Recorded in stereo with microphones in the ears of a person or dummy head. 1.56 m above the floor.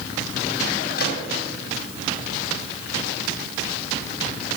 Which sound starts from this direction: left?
A gunshot, at 1.0 s.